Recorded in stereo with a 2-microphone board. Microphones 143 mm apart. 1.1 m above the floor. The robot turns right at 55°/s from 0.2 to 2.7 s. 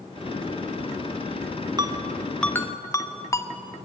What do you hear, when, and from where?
1.8 s a ringtone: 30° right (ahead or behind), 1.4 m; by 3.5 s 20° left (ahead or behind), 1.4 m